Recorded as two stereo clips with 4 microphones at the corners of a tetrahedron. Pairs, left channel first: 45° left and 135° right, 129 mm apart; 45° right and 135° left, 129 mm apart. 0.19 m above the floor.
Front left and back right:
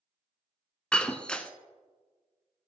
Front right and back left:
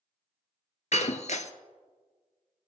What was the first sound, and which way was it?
Breaking glass, 35° right.